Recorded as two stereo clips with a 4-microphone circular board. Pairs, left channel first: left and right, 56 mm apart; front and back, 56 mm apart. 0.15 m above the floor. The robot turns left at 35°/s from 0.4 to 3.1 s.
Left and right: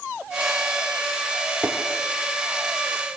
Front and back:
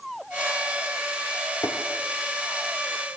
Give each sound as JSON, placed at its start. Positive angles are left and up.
{"t": 1.6, "sound": "tapping", "azimuth_deg": -10, "distance_m": 3.0}